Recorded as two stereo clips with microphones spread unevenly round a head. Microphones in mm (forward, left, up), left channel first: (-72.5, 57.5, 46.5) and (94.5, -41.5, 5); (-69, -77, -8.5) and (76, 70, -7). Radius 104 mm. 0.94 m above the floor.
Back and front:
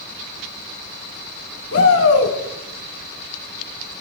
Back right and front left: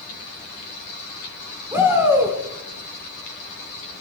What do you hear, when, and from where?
1.7 s a shout: 125° left, 3.5 m